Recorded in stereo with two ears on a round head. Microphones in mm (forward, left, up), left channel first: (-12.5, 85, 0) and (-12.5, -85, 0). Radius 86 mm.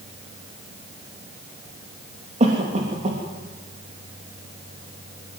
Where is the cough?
35° right (ahead or behind), 3 m.